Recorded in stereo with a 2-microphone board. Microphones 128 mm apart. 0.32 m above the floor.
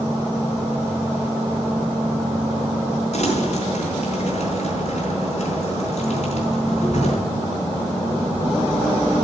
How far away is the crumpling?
About 4 m.